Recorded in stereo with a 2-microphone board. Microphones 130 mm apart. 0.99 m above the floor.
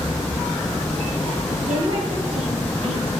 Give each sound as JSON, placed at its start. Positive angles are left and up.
{"t": 1.7, "sound": "a woman speaking", "side_deg": -50, "distance_m": 2.5}